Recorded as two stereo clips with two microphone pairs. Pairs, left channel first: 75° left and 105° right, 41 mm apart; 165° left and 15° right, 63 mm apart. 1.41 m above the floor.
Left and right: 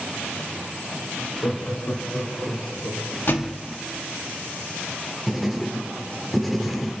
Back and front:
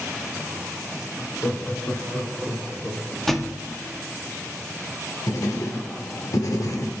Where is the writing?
165° left, 1.9 m.